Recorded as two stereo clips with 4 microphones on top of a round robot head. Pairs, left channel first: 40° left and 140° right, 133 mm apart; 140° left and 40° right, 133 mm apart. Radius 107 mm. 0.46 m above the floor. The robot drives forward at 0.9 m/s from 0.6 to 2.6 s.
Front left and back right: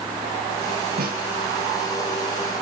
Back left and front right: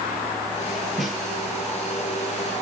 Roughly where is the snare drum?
Behind right.